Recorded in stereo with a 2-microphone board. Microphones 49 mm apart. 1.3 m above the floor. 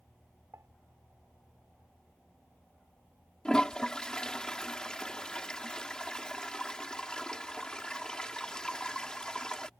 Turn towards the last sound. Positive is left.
turn(degrees=15)  # may be behind; listen again after turning